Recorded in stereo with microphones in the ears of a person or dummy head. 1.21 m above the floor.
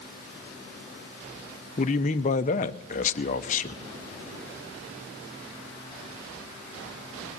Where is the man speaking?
35° left (ahead or behind), 0.8 m.